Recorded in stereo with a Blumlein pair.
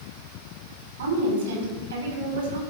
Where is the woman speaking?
60° right, 4 m.